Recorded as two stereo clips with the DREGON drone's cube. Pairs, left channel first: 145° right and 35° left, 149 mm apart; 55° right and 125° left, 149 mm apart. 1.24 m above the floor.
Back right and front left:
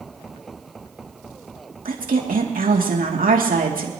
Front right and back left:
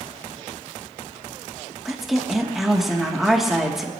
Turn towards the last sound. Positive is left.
turn(degrees=35)